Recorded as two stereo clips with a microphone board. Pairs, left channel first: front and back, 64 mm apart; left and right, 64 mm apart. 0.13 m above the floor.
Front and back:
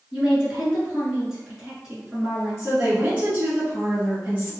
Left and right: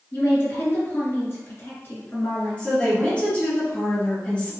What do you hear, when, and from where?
0.1 s a woman speaking: 105° left, 1.6 m
2.6 s a woman speaking: 140° left, 1.4 m